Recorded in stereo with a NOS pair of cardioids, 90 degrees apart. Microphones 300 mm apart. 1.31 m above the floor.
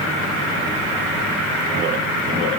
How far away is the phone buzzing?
I don't hear a phone buzzing.